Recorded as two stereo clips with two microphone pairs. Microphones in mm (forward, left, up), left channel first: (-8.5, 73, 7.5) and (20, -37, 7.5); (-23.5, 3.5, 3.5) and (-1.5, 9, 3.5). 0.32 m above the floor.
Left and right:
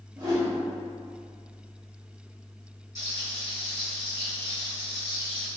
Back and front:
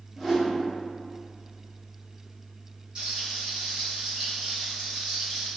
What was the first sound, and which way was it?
A whoosh, 50° right.